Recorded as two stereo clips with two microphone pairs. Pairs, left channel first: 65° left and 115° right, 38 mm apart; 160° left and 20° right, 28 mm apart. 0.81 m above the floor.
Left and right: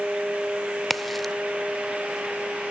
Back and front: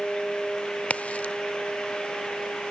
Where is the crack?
150° left, 0.6 m.